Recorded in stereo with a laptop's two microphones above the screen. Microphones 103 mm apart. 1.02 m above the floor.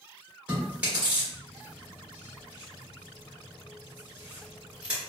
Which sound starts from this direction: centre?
Chewing, at 0.5 s.